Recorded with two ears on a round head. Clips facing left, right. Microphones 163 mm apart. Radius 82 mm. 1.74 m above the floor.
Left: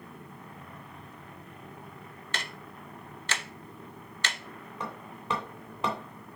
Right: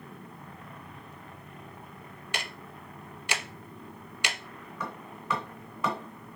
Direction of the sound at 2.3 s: 10° right (ahead or behind).